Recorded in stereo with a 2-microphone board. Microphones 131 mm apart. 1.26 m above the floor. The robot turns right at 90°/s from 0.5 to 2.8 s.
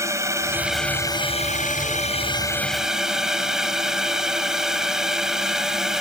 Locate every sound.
0.0 s a drone: 25° right; by 6.0 s 175° right